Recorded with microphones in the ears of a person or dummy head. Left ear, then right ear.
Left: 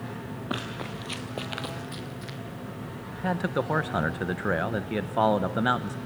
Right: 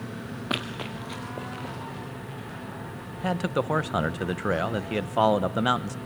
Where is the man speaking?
10° right (ahead or behind), 0.6 m.